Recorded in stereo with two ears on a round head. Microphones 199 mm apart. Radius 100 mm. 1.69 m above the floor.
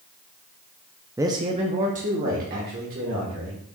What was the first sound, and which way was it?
A man speaking, 10° right (ahead or behind).